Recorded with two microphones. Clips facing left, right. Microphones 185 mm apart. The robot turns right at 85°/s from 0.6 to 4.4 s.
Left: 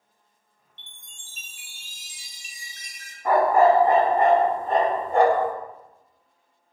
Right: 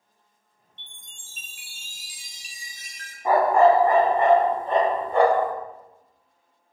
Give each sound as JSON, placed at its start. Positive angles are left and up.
{"t": 0.8, "sound": "a chime", "azimuth_deg": 180, "distance_m": 0.5}
{"t": 3.2, "sound": "a dog barking", "azimuth_deg": -20, "distance_m": 0.6}